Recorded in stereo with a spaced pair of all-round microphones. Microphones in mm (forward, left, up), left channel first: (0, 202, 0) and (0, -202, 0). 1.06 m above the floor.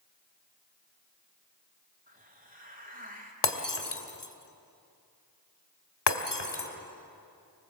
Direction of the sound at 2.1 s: 20° right (ahead or behind).